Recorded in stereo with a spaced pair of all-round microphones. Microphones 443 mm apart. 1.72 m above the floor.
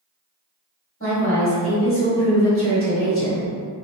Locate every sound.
1.0 s a woman speaking: 30° left (ahead or behind), 1.7 m